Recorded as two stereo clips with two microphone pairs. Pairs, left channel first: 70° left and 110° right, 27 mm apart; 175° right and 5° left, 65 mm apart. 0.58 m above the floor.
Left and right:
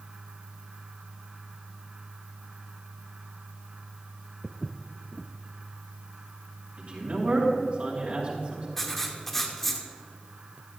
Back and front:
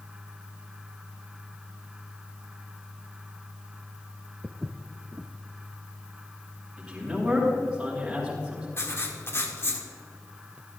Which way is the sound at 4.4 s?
5° right.